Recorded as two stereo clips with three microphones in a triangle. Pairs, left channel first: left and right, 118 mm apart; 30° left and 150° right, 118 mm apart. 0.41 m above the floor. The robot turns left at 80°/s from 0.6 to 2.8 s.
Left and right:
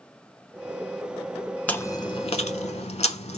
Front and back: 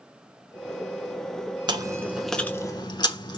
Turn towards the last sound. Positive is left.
turn(degrees=80)